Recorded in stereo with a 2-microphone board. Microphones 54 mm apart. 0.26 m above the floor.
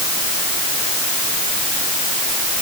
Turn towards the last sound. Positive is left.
No sound to turn to.